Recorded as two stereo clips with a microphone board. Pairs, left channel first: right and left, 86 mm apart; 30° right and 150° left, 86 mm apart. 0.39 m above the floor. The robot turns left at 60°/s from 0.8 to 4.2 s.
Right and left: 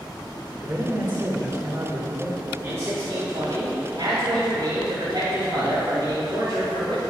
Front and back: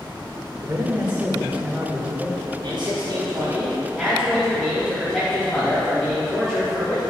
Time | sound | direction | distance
0.6 | a man speaking | 125° left | 1.5 m
2.6 | a man speaking | 150° left | 2.5 m